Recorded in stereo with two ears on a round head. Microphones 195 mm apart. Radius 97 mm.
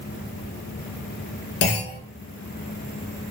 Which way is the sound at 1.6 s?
55° left (ahead or behind).